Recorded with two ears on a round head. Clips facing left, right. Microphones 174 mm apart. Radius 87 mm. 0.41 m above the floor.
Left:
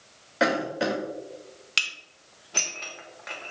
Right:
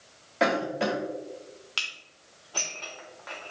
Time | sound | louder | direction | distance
0.4 | a cough | left 1 dB | 5° left (ahead or behind) | 1.1 m
1.8 | dishes clattering | left 3 dB | 25° left (ahead or behind) | 0.8 m